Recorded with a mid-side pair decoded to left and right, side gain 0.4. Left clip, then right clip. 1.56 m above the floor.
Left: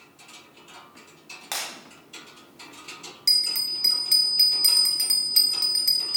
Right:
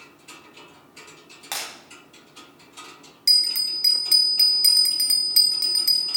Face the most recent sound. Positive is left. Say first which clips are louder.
# right 3 dB
turn(degrees=-20)